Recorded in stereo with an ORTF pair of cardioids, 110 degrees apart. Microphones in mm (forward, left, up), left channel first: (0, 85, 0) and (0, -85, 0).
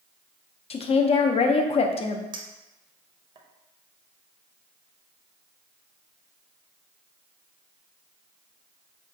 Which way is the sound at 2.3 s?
30° right.